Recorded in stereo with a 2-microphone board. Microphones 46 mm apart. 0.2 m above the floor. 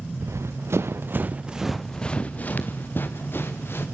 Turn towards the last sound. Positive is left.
turn(degrees=55)  # may be behind; listen again after turning